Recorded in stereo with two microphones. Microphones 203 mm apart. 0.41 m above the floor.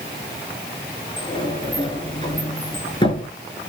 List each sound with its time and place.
1.2 s a sliding door: 25° left (ahead or behind), 6 m